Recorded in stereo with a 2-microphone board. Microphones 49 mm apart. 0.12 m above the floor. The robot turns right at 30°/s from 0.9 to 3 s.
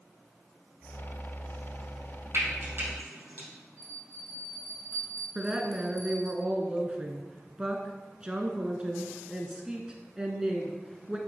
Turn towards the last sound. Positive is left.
turn(degrees=-20)  # may be behind; listen again after turning